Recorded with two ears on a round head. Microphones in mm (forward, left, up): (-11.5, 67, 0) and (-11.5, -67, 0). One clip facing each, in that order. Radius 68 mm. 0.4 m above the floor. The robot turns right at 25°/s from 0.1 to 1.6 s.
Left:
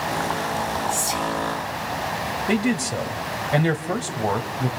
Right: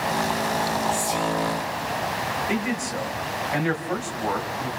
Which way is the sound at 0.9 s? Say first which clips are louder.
Right 1 dB; 45° left (ahead or behind).